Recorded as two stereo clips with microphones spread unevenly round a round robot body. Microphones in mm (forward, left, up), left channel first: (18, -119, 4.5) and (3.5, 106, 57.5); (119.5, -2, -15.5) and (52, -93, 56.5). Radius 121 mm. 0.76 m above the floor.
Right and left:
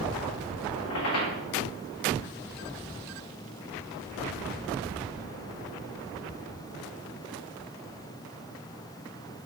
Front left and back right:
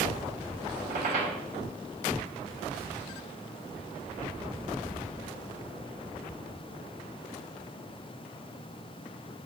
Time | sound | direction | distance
0.8 | a squeak | 110° right | 1.3 m